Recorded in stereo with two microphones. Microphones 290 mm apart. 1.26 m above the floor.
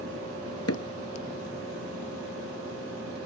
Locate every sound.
0.7 s hammering: 55° left (ahead or behind)